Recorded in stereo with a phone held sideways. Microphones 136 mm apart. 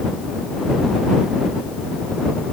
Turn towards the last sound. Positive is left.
No sound to turn to.